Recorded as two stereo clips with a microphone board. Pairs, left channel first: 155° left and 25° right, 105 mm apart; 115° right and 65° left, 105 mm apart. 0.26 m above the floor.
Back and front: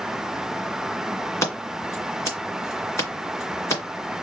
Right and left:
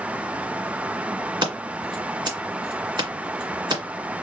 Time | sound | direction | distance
1.4 | scissors | 100° left | 2 m